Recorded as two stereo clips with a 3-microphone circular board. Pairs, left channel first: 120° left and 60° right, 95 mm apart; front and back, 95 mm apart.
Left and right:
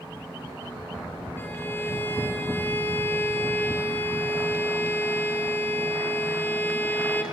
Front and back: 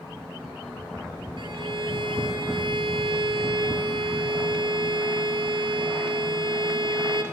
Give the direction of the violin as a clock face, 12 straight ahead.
6 o'clock.